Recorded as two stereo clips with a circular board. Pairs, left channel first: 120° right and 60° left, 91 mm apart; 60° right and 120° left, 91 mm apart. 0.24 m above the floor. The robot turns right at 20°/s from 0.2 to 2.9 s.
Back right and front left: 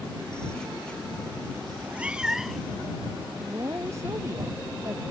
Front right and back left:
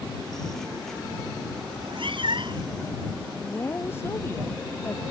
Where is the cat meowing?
130° left; by 2.7 s 150° left.